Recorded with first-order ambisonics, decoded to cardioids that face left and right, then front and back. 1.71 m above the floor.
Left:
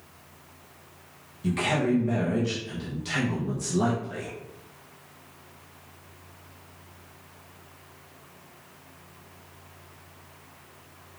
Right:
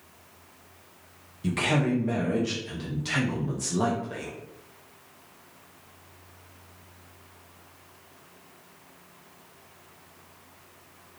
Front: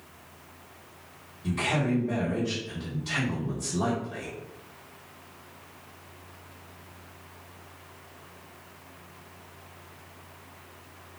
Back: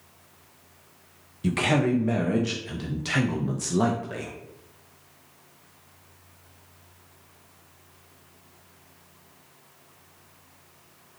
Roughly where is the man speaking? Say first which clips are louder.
Even, back 4 dB; behind.